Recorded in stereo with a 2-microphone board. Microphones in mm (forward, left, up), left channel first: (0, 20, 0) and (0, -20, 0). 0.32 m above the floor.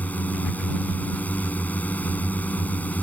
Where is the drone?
40° left (ahead or behind).